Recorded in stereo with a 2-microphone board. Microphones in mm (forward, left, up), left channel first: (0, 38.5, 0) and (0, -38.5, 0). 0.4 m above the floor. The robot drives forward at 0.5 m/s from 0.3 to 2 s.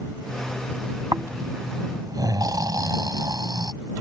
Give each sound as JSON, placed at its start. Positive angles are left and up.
{"t": 1.1, "sound": "snoring", "side_deg": -50}